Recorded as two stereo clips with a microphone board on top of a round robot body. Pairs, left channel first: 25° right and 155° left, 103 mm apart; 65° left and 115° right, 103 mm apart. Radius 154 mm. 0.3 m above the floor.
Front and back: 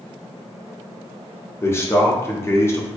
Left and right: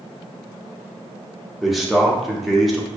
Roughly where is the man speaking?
Ahead right.